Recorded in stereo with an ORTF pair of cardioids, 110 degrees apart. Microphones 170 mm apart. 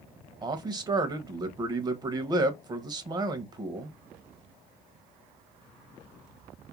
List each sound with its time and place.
0.4 s a man speaking: 25° right, 0.6 m